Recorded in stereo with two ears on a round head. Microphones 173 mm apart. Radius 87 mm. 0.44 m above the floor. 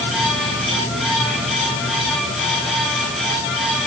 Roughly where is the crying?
I don't hear crying.